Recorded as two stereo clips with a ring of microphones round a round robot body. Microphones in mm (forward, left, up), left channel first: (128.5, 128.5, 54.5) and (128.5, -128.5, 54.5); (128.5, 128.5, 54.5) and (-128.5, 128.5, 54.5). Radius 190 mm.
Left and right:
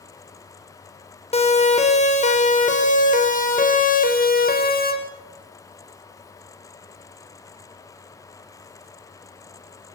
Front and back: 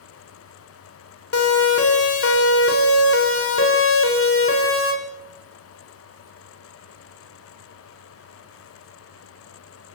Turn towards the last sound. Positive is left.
turn(degrees=35)